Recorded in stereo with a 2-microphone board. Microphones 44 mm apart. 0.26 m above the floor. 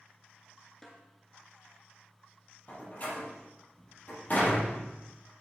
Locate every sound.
0.8 s a snare drum: 10° left (ahead or behind), 1.8 m
2.7 s a door slam: 40° left (ahead or behind), 4.5 m